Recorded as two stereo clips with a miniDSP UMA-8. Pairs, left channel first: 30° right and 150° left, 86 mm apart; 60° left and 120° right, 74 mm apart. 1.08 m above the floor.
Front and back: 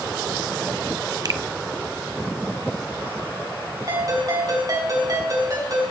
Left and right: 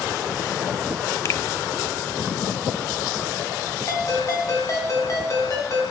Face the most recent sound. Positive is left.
turn(degrees=105)